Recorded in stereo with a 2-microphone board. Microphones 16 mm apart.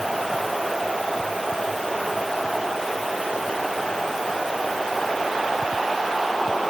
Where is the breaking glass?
No breaking glass in this recording.